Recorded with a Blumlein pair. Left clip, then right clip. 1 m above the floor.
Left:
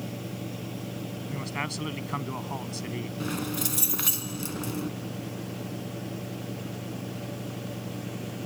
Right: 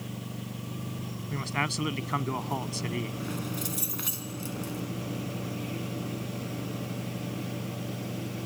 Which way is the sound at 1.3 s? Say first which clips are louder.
Right 4 dB; 10° right.